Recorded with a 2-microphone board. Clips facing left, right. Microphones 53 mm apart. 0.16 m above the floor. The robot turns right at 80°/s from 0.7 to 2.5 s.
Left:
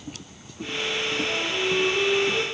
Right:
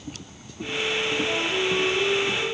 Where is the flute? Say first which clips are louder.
Right 1 dB; 35° right, 4 m; by 2.4 s 60° left, 4 m.